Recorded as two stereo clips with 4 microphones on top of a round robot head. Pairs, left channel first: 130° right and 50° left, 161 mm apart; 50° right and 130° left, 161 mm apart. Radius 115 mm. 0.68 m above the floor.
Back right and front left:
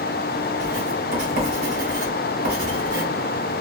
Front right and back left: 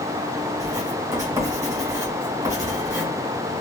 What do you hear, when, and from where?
0.6 s writing: 60° left, 1.9 m